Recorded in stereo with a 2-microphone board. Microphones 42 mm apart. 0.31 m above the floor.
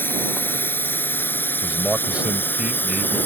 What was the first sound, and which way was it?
A drone, 60° left (ahead or behind).